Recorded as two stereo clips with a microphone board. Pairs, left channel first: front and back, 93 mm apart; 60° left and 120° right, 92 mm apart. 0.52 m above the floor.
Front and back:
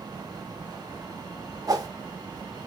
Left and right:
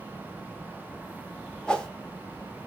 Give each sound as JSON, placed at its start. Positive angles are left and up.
{"t": 1.7, "sound": "a whoosh", "azimuth_deg": 140, "distance_m": 0.6}